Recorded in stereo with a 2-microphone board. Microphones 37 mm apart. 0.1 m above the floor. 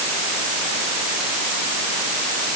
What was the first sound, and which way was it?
Only background noise.